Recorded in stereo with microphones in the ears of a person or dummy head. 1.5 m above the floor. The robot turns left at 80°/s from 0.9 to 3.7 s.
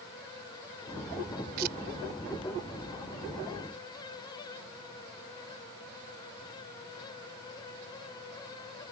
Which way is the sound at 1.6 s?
50° right (ahead or behind).